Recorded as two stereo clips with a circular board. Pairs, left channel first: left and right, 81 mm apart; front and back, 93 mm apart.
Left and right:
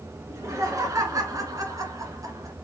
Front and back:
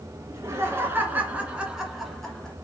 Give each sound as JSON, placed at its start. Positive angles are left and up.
{"t": 0.3, "sound": "laughter", "azimuth_deg": -130, "distance_m": 2.0}